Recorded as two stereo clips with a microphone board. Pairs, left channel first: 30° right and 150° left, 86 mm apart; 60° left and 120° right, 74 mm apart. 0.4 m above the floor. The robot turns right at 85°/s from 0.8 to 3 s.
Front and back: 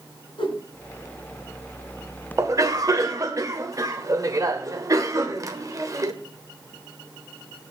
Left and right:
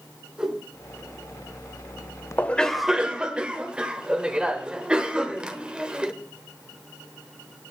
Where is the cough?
115° left, 1.2 m; by 6.1 s 170° left, 1.2 m.